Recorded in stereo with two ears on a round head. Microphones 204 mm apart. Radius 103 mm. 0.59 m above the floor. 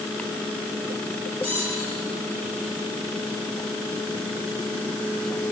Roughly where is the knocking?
No knocking in this recording.